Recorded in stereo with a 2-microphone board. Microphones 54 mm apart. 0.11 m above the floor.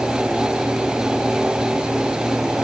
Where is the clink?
I don't hear a clink.